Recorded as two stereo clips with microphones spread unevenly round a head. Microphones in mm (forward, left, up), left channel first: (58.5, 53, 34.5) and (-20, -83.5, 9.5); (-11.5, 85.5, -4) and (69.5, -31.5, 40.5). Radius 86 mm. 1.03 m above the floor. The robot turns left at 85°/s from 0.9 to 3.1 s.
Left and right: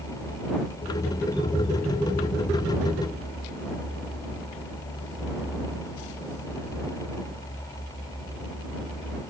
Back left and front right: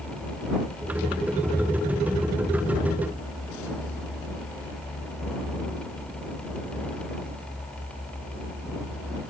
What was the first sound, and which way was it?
Only background noise.